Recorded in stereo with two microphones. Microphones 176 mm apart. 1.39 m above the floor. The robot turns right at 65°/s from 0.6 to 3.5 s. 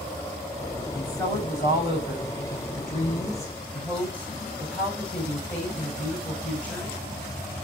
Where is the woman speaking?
5° left, 6.5 m; by 7.0 s 170° left, 6.5 m.